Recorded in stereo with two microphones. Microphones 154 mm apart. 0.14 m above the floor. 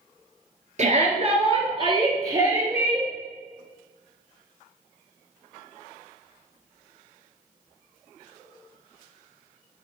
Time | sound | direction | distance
0.8 | a shout | 50° right (ahead or behind) | 2.5 m